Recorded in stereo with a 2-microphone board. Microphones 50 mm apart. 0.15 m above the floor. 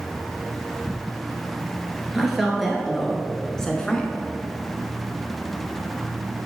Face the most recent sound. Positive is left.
turn(degrees=20)  # may be behind; listen again after turning